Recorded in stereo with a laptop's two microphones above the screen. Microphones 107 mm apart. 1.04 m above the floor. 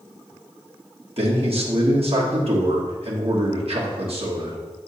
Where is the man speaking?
65° right (ahead or behind), 1.4 m.